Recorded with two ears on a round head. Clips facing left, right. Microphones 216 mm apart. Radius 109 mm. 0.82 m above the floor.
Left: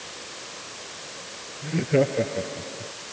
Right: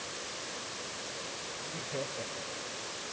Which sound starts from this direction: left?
Laughter, at 1.6 s.